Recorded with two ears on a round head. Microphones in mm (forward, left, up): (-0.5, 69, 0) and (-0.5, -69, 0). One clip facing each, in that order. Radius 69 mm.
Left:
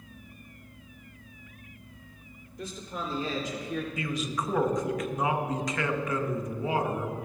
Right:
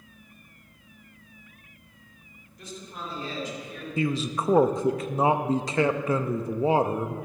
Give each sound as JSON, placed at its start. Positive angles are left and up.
{"t": 2.6, "sound": "a man speaking", "side_deg": 70, "distance_m": 3.5}
{"t": 4.0, "sound": "a man speaking", "side_deg": -25, "distance_m": 0.6}